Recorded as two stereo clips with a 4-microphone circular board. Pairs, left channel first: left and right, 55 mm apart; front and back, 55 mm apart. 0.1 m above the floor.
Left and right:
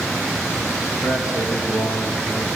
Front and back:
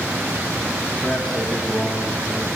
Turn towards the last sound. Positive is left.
turn(degrees=90)